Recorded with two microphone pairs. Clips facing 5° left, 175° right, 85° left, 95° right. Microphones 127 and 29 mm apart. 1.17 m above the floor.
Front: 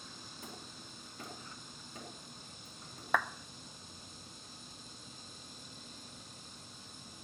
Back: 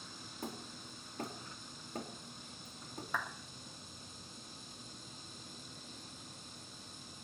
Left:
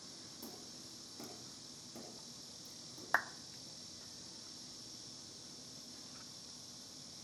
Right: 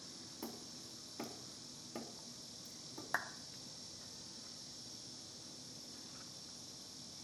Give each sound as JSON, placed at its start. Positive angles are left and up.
{"t": 0.4, "sound": "hammering", "azimuth_deg": -140, "distance_m": 4.0}
{"t": 3.1, "sound": "a clap", "azimuth_deg": 20, "distance_m": 0.6}